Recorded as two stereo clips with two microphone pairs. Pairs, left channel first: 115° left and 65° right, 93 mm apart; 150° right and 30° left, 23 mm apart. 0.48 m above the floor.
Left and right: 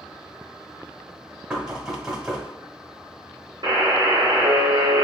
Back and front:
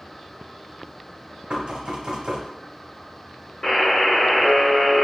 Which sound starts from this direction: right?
A buzzer, at 3.6 s.